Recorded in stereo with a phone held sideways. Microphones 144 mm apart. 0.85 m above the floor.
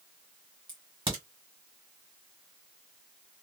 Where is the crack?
35° right (ahead or behind), 1.6 m.